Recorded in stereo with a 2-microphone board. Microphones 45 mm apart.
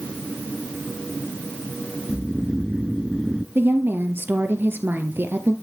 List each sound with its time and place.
2.1 s snoring: 15° right (ahead or behind), 0.6 m
3.5 s a woman speaking: 55° right (ahead or behind), 2.5 m